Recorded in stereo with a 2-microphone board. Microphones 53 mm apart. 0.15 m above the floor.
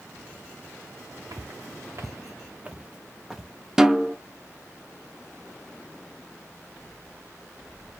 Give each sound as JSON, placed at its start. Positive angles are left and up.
{"t": 1.3, "sound": "footsteps", "side_deg": -85, "distance_m": 0.9}
{"t": 3.8, "sound": "a snare drum", "side_deg": -10, "distance_m": 0.5}